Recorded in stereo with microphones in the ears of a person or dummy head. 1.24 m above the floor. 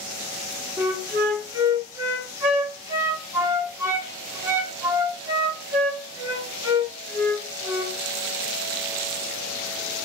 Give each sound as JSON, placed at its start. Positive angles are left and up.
{"t": 0.8, "sound": "a flute", "side_deg": -20, "distance_m": 1.2}